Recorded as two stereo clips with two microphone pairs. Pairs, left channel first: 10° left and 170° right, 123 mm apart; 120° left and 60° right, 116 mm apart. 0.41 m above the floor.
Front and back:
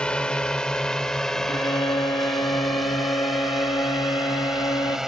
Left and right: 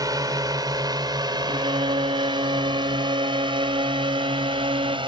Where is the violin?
40° right.